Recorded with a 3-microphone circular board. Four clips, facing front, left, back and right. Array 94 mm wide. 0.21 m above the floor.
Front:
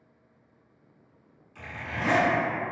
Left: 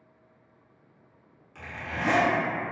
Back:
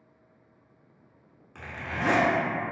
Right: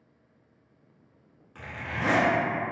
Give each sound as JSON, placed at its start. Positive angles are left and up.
{"t": 1.6, "sound": "a zipper", "azimuth_deg": -160, "distance_m": 0.7}